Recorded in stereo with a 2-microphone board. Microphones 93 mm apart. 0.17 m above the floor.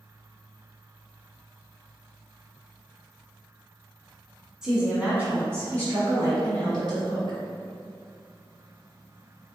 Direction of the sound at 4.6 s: 5° right (ahead or behind).